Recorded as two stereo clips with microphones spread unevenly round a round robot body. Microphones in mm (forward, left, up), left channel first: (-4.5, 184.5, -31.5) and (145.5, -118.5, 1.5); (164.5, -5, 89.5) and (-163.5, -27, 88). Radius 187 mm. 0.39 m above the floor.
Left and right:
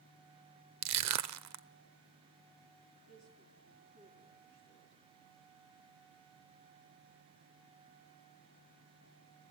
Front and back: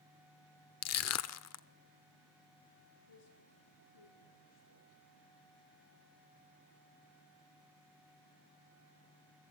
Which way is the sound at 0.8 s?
30° right.